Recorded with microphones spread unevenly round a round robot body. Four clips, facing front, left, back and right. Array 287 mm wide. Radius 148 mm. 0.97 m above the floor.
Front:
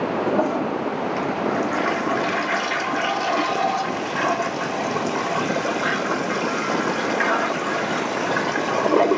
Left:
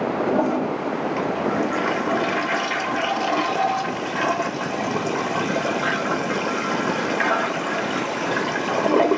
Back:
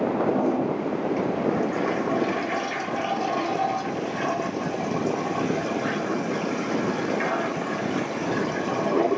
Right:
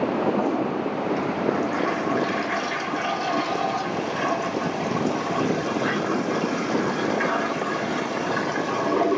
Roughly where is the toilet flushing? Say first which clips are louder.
Left 2 dB, front 2 dB; ahead left.